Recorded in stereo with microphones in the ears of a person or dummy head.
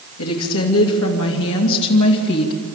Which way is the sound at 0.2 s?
85° left.